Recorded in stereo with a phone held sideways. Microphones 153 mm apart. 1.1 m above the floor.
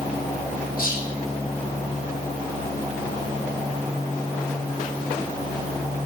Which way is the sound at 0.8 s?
75° left (ahead or behind).